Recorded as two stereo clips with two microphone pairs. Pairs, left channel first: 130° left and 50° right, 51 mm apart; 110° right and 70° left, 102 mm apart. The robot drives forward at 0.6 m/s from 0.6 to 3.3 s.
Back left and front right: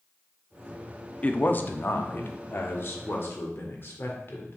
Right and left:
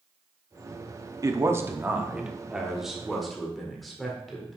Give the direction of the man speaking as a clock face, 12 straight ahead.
9 o'clock.